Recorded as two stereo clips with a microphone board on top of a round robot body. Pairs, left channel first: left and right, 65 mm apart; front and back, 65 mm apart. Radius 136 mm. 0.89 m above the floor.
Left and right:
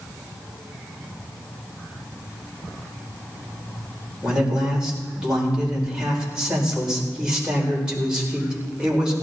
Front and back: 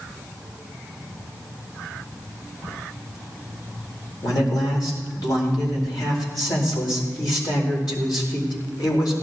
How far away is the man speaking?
About 4.5 m.